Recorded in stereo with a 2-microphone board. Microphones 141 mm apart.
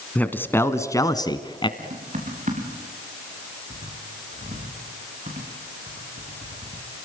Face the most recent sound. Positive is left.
turn(degrees=-65)  # may be behind; listen again after turning